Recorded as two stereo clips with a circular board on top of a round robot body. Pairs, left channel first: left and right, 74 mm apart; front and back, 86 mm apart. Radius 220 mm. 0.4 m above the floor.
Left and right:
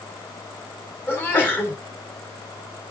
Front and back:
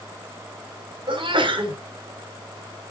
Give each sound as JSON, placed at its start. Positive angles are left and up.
{"t": 1.1, "sound": "a sneeze", "azimuth_deg": 155, "distance_m": 4.0}